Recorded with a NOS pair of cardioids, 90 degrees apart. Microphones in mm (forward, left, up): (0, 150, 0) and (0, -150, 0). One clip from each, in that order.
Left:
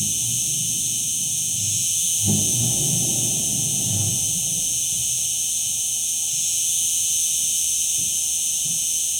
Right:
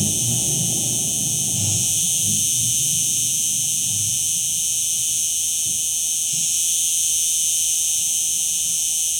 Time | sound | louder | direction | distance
0.0 | an insect | right 2 dB | 20° right | 1.3 m